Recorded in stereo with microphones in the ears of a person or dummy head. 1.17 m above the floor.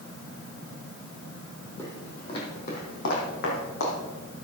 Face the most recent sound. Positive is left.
turn(degrees=70)  # may be behind; listen again after turning